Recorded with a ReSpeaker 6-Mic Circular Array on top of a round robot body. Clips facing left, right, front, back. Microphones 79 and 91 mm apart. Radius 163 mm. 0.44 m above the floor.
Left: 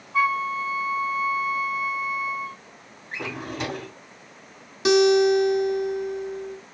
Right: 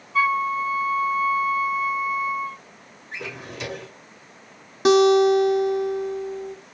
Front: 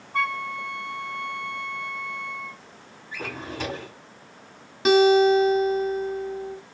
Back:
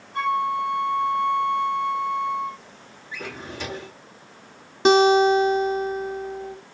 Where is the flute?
35° left, 2.5 m.